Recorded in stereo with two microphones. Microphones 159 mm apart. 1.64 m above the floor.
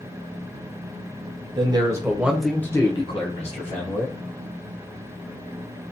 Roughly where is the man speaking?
Right.